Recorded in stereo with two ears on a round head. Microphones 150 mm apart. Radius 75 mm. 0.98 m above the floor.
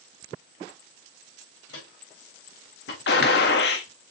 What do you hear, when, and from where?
1.7 s footsteps: 75° left (ahead or behind), 4.5 m
3.1 s a gunshot: 70° left (ahead or behind), 1.6 m